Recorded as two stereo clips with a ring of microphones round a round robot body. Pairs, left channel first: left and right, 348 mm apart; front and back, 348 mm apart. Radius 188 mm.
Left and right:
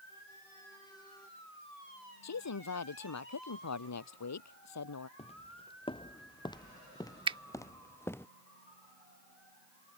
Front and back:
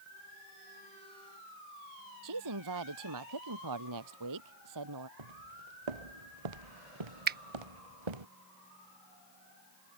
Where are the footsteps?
165° left; by 8.3 s 175° left.